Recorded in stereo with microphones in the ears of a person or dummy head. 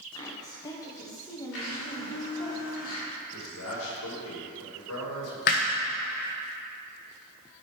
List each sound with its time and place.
0.1 s a woman speaking: 20° left (ahead or behind), 1.4 m
1.5 s a blender: 70° left (ahead or behind), 3 m
3.3 s a man speaking: 75° left (ahead or behind), 2.5 m
5.5 s hammering: 35° left (ahead or behind), 0.7 m